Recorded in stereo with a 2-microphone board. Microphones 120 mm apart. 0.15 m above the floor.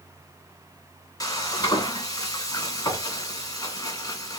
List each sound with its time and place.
1.2 s frying: 30° left (ahead or behind), 1.6 m